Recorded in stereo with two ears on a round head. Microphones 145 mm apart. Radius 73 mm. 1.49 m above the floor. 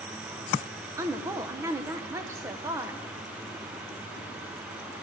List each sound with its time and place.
1.0 s a woman speaking: 20° right (ahead or behind), 0.7 m